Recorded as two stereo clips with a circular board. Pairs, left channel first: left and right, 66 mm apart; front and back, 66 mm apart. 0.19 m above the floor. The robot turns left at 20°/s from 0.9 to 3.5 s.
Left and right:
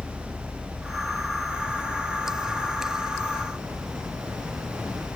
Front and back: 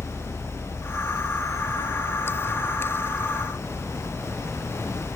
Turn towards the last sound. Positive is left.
turn(degrees=95)